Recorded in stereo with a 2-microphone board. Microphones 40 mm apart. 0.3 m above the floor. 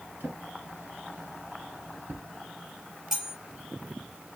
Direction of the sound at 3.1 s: 15° right (ahead or behind).